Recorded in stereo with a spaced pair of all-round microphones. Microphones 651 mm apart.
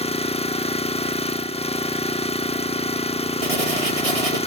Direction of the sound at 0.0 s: 10° left (ahead or behind).